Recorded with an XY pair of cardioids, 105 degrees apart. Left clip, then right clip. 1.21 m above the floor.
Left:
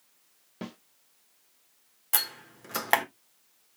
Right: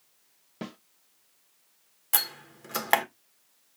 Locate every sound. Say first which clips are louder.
0.6 s a snare drum: right 1 dB; 15° right, 1.0 m
2.1 s a door slam: right 1 dB; 5° right, 1.2 m